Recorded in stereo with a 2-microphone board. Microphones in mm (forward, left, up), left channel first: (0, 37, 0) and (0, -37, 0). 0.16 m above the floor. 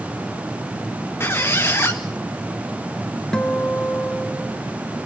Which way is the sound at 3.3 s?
10° left (ahead or behind).